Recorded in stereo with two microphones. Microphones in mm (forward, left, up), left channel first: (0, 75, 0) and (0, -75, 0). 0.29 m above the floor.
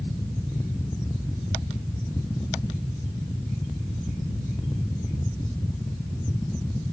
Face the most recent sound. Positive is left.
No sound to turn to.